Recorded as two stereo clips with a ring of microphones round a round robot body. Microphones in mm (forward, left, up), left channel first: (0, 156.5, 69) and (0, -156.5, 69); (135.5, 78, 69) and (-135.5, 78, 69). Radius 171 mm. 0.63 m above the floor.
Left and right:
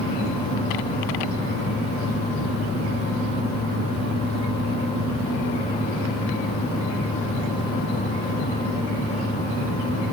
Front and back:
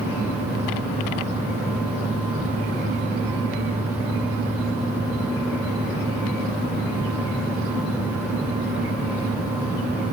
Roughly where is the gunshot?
I don't hear a gunshot.